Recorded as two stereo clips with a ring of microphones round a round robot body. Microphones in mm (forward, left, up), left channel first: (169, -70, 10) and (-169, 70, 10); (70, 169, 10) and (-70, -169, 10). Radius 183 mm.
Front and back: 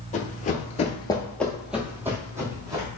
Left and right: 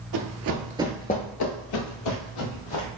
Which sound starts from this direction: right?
Running footsteps, at 0.1 s.